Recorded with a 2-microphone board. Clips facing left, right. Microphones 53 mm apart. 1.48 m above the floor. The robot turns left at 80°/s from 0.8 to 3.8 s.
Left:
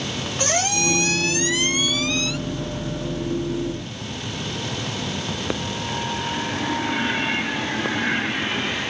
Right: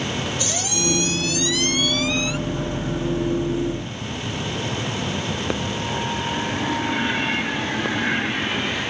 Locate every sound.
0.4 s a squeak: 100° left; by 2.4 s 25° right